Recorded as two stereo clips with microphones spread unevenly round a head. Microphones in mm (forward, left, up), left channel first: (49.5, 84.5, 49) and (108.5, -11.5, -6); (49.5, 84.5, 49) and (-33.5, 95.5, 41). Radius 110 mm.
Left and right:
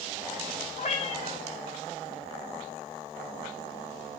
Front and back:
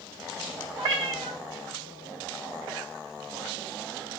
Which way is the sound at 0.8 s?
170° left.